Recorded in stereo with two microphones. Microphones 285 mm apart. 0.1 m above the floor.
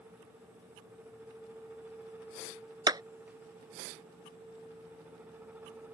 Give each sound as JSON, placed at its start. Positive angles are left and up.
{"t": 2.9, "sound": "a clap", "side_deg": -15}